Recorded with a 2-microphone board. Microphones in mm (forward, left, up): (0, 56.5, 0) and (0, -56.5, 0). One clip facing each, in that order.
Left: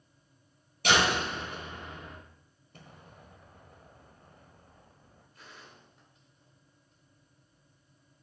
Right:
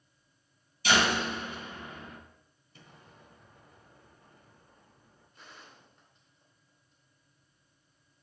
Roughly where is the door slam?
Left.